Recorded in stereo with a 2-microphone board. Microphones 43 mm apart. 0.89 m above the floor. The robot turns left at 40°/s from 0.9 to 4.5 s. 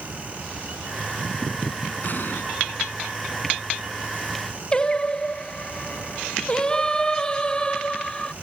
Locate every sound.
2.0 s an explosion: 50° left (ahead or behind); by 2.4 s 65° left (ahead or behind)
4.7 s singing: 20° left (ahead or behind)